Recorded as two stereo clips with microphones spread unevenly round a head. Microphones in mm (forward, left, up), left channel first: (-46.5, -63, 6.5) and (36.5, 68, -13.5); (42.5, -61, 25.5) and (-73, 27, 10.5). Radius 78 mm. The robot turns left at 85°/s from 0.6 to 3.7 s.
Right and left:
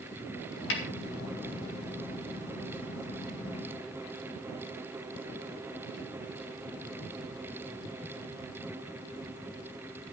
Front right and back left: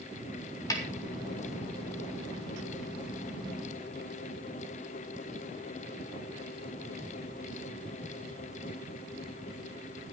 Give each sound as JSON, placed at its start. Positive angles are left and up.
{"t": 0.7, "sound": "a snare drum", "azimuth_deg": -105, "distance_m": 4.0}